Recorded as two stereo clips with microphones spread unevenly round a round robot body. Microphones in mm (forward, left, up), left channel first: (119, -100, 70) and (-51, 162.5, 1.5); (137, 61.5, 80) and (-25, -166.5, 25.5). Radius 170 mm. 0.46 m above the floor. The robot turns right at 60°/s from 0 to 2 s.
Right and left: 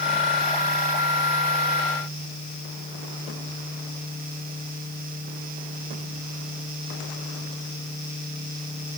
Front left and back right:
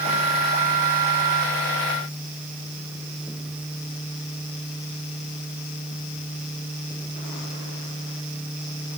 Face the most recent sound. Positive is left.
No sound to turn to.